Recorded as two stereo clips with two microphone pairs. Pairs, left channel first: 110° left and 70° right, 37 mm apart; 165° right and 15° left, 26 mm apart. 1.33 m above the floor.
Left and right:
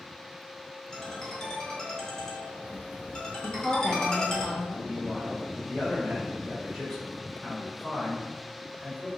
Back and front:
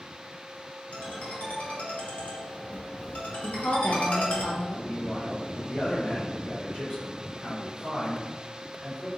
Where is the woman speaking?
170° right, 0.9 m.